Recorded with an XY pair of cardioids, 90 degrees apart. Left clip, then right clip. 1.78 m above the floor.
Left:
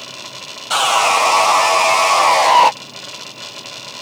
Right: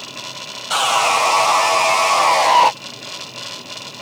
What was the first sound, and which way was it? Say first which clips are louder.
Sawing: left 2 dB; 20° left.